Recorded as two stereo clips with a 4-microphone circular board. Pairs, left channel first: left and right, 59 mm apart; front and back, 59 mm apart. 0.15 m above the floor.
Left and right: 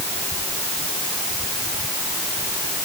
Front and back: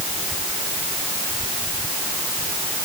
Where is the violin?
No violin in this recording.